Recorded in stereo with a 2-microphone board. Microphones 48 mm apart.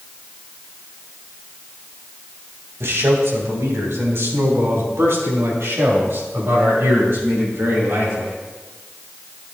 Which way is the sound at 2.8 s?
70° right (ahead or behind).